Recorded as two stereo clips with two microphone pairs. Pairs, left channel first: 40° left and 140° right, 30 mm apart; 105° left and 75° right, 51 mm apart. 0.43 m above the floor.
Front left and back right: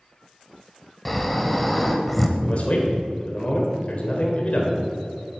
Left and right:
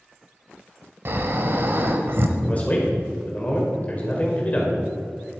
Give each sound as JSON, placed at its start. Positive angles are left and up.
{"t": 1.1, "sound": "snoring", "azimuth_deg": -40, "distance_m": 1.1}
{"t": 2.4, "sound": "a man speaking", "azimuth_deg": 60, "distance_m": 1.7}